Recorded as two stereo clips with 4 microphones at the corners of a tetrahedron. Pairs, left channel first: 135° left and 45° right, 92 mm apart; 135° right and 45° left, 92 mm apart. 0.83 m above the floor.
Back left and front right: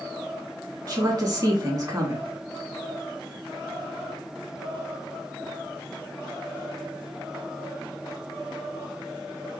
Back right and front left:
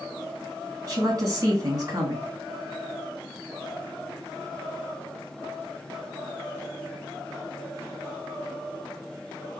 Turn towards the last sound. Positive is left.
turn(degrees=-5)